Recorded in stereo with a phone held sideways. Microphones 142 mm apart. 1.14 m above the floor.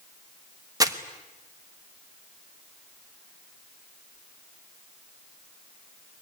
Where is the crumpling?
25° right (ahead or behind), 1.3 m.